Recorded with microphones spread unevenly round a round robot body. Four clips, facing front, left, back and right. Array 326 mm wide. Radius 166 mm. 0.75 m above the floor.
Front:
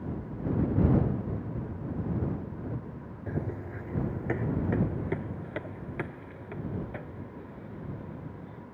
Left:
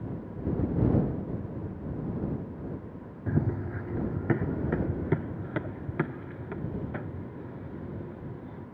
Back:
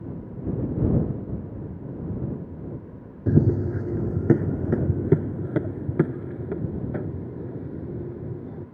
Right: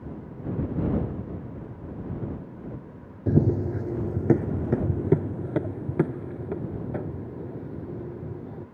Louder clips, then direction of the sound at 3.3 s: Right 8 dB, back 14 dB; 155° right.